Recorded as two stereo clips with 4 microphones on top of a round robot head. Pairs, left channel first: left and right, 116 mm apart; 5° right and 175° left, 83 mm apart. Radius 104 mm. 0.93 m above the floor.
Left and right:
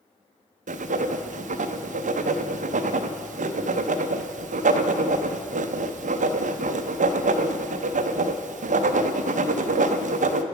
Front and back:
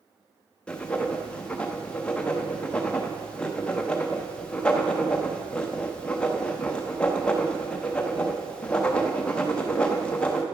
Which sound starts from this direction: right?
Writing, at 0.7 s.